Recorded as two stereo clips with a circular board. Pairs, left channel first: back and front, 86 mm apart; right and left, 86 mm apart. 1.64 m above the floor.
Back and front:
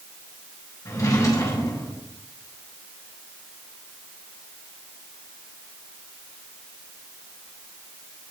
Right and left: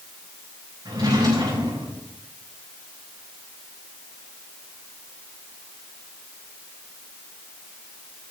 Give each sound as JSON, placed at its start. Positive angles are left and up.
{"t": 0.8, "sound": "a drawer", "azimuth_deg": 130, "distance_m": 6.0}